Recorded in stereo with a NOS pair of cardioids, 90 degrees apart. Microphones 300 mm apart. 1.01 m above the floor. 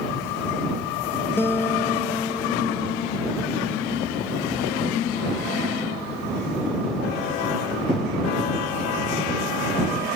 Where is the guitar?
5° left.